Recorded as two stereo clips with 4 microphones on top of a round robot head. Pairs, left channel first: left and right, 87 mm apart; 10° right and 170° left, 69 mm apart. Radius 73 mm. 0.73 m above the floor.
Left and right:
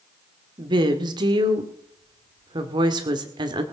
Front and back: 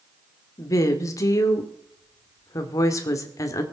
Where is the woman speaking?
55° right, 2.0 m.